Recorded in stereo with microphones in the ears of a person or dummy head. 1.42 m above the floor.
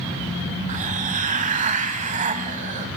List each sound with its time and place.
0.7 s a hiss: 40° right (ahead or behind), 2.5 m